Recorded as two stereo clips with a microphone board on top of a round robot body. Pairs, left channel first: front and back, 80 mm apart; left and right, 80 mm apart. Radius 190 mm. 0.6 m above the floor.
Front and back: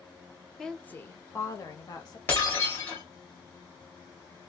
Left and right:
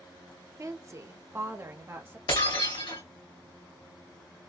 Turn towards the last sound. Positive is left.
turn(degrees=65)